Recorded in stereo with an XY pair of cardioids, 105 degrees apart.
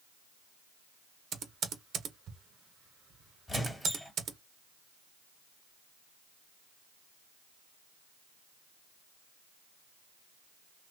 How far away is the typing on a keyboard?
About 0.8 m.